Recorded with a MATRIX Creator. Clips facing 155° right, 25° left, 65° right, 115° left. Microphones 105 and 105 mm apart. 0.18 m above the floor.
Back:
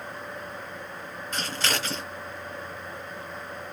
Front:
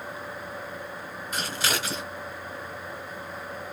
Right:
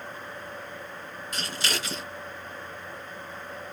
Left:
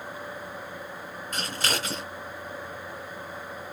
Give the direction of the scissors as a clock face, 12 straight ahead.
9 o'clock.